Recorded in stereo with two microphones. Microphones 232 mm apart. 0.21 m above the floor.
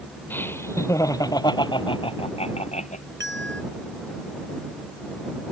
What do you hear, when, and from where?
0.3 s laughter: 10° left (ahead or behind); by 3.0 s 30° left (ahead or behind)
3.2 s a bell: 55° right (ahead or behind)